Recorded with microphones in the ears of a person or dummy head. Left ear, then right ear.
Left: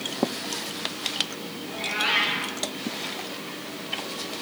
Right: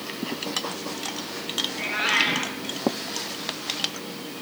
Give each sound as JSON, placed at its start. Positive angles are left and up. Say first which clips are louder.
{"t": 1.7, "sound": "a cat meowing", "louder": "left 1 dB", "side_deg": -25, "distance_m": 8.0}